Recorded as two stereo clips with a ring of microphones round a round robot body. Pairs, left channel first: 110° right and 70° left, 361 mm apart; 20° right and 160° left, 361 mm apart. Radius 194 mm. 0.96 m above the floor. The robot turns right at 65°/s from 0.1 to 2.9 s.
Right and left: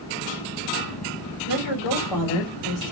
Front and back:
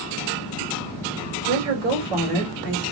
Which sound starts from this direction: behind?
A woman speaking, at 1.5 s.